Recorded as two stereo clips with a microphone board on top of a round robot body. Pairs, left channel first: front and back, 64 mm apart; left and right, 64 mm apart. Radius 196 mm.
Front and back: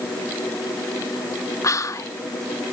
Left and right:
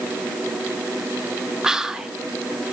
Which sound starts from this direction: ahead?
Whispering, at 1.6 s.